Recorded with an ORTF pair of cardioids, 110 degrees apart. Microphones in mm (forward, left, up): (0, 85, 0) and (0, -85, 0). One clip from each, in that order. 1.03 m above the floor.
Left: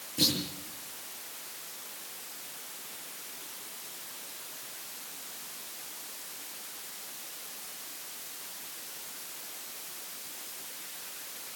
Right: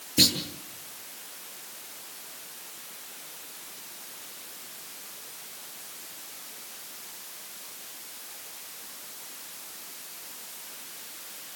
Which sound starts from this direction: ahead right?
A clunk, at 0.2 s.